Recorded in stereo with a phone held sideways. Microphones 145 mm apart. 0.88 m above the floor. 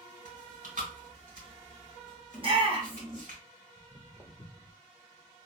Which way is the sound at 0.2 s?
75° right (ahead or behind).